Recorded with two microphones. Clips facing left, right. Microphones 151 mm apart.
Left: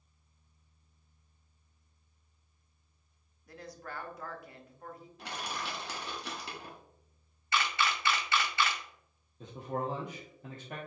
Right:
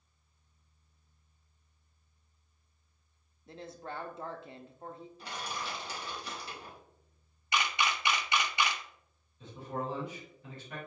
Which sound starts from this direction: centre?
A camera shutter, at 7.5 s.